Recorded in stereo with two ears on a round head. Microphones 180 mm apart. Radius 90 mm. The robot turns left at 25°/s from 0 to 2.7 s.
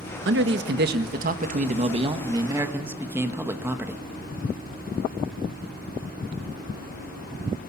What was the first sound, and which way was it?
A man speaking, 105° right.